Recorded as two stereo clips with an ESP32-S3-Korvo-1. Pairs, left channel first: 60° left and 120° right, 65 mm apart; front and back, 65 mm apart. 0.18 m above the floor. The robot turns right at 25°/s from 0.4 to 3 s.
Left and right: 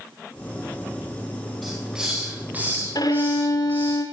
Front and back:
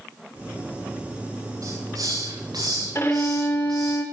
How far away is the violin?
About 6.5 m.